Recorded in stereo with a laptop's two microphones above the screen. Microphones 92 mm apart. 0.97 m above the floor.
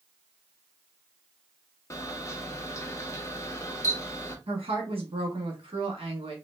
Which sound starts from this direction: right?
A woman speaking, at 4.5 s.